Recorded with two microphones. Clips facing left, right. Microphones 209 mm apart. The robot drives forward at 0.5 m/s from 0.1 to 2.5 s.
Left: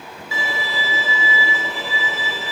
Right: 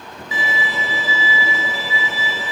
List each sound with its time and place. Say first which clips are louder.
0.3 s a violin: right 2 dB; 20° right (ahead or behind), 0.6 m; by 2.5 s 10° right (ahead or behind), 1.1 m